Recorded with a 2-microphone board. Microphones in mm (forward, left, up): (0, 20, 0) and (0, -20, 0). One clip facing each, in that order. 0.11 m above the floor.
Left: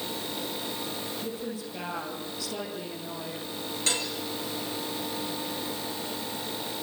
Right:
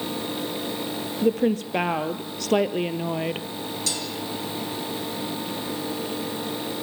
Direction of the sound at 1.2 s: 60° right (ahead or behind).